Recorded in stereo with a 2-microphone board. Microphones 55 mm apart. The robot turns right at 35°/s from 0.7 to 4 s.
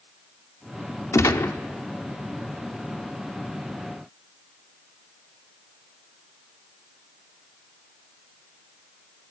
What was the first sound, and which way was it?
A gunshot, 65° left (ahead or behind).